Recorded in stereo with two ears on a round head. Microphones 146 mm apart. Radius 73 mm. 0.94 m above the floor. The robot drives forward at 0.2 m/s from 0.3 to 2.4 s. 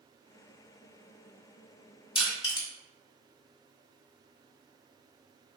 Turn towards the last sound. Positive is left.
turn(degrees=30)  # may be behind; listen again after turning